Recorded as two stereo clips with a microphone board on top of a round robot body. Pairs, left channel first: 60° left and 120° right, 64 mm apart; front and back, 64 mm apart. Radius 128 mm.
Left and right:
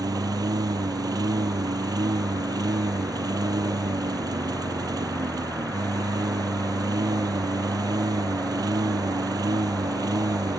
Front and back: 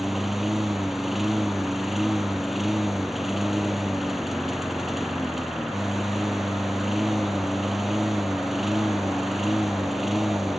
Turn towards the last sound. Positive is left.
turn(degrees=-95)